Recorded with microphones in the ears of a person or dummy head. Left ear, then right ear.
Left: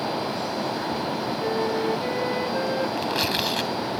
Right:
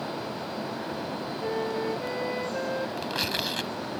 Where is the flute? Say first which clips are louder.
Left 4 dB; 5° right (ahead or behind).